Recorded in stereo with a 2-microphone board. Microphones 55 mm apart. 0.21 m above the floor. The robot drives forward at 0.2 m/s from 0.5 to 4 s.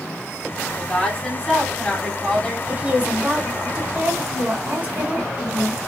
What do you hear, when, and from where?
0.8 s a woman speaking: 15° left (ahead or behind), 1.6 m
2.7 s a woman speaking: 30° right (ahead or behind), 1.5 m